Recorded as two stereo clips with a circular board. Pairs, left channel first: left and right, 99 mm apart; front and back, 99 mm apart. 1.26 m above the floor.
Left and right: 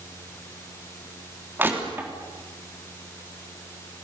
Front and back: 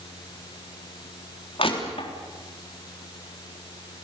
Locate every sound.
1.6 s crushing: 20° right, 3.5 m